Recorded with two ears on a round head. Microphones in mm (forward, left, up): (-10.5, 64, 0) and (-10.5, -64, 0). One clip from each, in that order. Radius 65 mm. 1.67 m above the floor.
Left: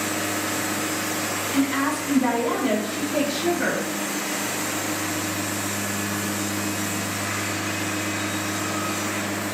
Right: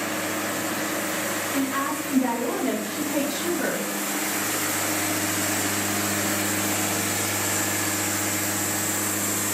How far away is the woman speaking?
About 0.9 m.